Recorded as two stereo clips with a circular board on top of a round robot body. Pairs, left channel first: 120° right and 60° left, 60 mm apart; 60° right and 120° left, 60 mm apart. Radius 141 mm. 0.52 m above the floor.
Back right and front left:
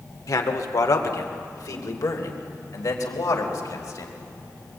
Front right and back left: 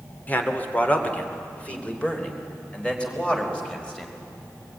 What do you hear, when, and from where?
0.3 s a man speaking: 120° right, 2.5 m; by 4.1 s 135° right, 4.5 m